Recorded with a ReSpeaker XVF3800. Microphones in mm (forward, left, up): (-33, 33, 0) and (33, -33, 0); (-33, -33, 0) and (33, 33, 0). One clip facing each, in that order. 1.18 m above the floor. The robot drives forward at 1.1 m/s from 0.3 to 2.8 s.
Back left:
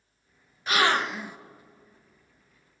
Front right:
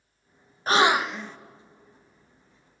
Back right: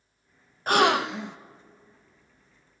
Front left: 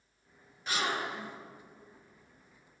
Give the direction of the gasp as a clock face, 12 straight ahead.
3 o'clock.